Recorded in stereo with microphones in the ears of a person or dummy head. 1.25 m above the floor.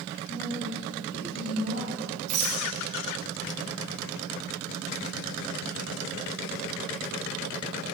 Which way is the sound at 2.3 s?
40° right (ahead or behind).